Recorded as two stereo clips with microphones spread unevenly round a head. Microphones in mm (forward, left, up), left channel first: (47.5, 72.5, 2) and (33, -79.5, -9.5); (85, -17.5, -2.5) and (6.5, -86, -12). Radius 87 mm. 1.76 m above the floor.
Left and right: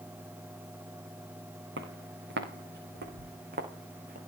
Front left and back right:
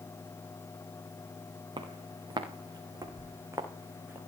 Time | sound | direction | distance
1.8 | footsteps | 95° right | 5.5 m